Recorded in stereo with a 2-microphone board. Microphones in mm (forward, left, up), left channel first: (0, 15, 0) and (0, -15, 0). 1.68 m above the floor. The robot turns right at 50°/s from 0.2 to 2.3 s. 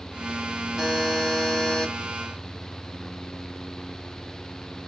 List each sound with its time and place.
0.8 s a buzzer: 25° right, 2 m; by 1.9 s 35° left, 2 m